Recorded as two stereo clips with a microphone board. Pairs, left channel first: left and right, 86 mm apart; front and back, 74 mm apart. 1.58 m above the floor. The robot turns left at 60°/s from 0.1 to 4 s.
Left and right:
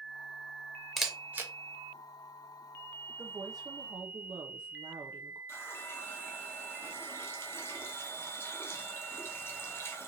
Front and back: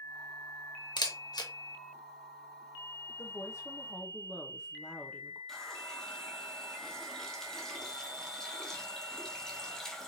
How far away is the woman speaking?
About 0.6 m.